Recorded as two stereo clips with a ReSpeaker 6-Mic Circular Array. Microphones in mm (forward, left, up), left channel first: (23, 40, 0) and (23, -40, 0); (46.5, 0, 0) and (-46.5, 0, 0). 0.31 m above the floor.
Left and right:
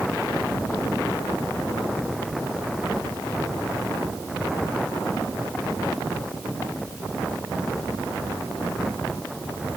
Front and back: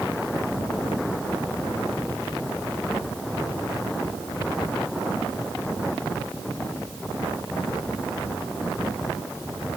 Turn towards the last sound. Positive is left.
No sound to turn to.